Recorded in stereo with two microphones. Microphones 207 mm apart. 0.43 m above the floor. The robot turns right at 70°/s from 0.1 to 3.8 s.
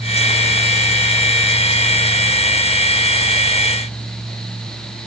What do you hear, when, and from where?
Only background noise.